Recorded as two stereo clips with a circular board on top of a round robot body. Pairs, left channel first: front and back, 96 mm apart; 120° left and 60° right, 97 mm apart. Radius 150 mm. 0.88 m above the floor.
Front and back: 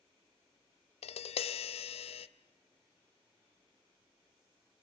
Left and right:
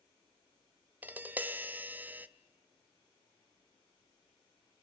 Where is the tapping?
15° left, 0.6 m.